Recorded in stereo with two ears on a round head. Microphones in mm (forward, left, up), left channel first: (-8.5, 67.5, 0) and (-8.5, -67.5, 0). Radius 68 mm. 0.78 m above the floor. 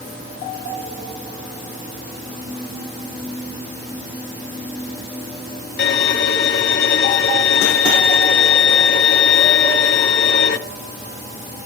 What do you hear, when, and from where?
5.8 s a violin: 65° left (ahead or behind), 1.4 m